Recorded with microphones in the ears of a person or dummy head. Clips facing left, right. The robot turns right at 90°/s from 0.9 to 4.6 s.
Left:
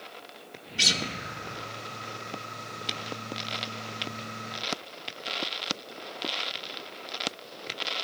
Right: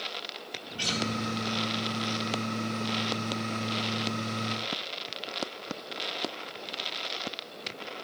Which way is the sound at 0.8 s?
25° left (ahead or behind).